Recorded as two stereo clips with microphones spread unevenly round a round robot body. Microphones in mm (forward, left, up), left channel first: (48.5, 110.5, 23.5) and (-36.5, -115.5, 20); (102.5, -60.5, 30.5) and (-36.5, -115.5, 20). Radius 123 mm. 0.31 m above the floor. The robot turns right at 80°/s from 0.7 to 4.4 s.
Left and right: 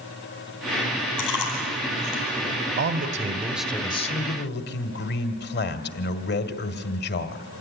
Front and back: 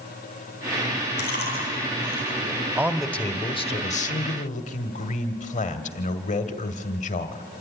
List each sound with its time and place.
1.2 s chewing: 50° left, 9 m; by 2.5 s 160° left, 9 m
2.8 s a man speaking: 90° right, 1.3 m; by 7.5 s 40° left, 1.3 m